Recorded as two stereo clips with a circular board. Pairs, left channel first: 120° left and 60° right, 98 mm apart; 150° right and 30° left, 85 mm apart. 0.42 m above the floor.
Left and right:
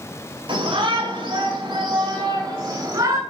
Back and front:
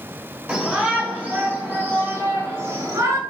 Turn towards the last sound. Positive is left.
turn(degrees=-10)